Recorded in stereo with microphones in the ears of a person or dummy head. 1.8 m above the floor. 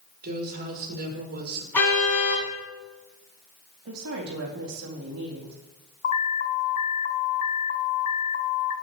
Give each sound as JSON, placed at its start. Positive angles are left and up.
{"t": 0.2, "sound": "a woman speaking", "side_deg": -55, "distance_m": 5.5}
{"t": 1.7, "sound": "a car horn", "side_deg": 10, "distance_m": 8.5}
{"t": 3.9, "sound": "a woman speaking", "side_deg": -80, "distance_m": 3.5}
{"t": 6.0, "sound": "an alarm", "side_deg": 45, "distance_m": 1.4}